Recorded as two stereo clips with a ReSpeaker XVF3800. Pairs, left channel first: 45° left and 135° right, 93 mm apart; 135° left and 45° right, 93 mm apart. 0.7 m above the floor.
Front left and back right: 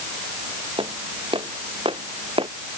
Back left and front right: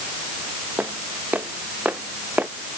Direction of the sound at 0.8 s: 115° right.